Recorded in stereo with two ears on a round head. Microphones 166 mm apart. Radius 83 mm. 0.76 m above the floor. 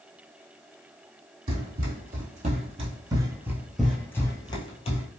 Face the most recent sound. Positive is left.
turn(degrees=40)  # may be behind; listen again after turning